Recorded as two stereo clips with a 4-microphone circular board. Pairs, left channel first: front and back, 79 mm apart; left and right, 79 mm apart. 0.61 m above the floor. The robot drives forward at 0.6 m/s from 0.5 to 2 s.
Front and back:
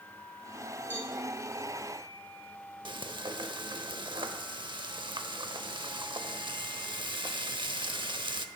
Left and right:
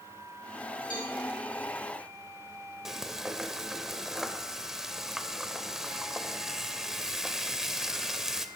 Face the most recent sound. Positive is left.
turn(degrees=-175)